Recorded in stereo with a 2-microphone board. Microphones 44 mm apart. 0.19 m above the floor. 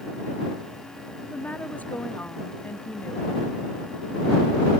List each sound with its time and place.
1.2 s a woman speaking: 30° left (ahead or behind); by 3.4 s 40° left (ahead or behind)